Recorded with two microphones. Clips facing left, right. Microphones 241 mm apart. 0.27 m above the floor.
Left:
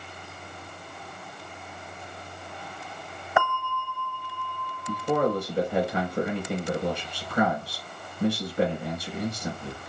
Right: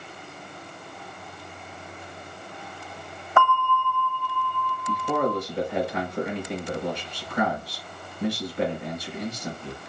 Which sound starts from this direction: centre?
A bell, at 3.4 s.